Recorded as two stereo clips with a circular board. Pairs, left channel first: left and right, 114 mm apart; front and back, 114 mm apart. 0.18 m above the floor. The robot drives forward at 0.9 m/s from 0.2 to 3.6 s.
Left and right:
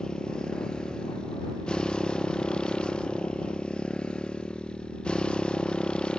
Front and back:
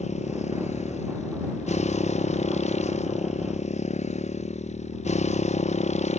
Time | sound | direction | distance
0.0 | a motorcycle | 5° left | ?